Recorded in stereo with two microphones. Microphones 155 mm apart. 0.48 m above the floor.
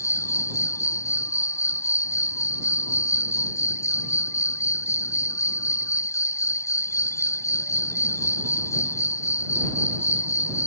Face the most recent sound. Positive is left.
turn(degrees=20)  # may be behind; listen again after turning